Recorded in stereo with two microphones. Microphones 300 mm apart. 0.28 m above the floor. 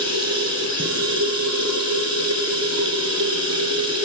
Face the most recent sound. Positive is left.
turn(degrees=-55)  # may be behind; listen again after turning